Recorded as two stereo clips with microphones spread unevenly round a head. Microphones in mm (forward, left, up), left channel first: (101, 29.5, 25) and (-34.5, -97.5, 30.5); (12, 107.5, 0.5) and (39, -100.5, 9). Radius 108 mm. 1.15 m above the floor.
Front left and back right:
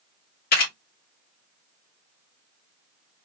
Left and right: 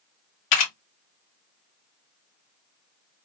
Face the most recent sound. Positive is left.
turn(degrees=95)